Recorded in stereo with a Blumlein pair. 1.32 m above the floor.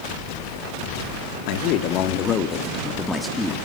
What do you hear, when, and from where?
1.5 s a man speaking: 45° left, 2.5 m; by 3.5 s 5° right, 2.5 m